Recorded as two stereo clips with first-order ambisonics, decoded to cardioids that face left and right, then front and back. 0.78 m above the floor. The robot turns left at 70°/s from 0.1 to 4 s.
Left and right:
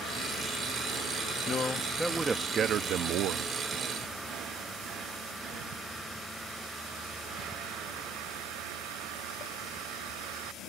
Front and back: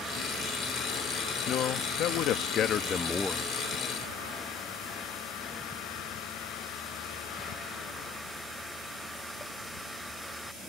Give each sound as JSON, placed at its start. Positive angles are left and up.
{"t": 1.5, "sound": "a man speaking", "azimuth_deg": 40}